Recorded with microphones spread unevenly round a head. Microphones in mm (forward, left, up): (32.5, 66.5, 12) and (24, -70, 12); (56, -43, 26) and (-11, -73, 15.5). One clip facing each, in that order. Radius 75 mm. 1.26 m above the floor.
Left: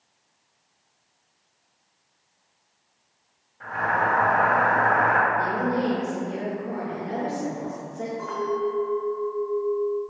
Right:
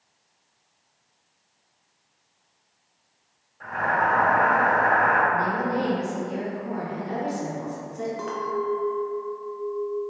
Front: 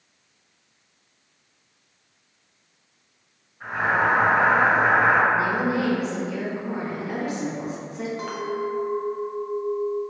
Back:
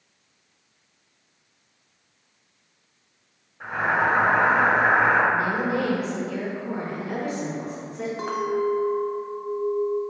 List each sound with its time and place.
3.6 s boiling: 170° left, 1.3 m
5.3 s a woman speaking: 55° right, 1.5 m
8.2 s a clink: 90° right, 0.5 m